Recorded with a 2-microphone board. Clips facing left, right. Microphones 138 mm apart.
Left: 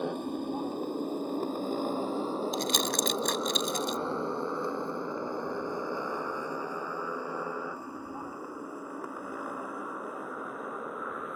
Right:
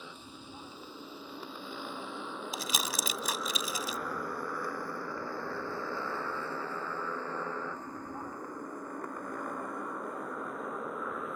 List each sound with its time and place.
0.0 s a motorcycle: 60° left (ahead or behind); by 11.4 s centre (ahead or behind)
2.5 s crumpling: 5° right (ahead or behind)